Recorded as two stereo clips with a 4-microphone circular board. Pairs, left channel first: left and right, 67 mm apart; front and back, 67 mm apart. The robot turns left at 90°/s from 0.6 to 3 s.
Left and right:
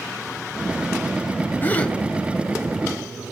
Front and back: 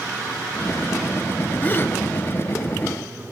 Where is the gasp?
50° left, 0.9 m; by 2.0 s 15° left, 0.9 m.